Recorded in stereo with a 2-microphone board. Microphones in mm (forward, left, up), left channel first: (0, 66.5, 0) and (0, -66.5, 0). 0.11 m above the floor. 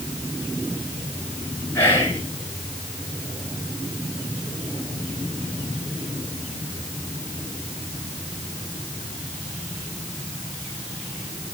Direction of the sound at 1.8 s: 20° left (ahead or behind).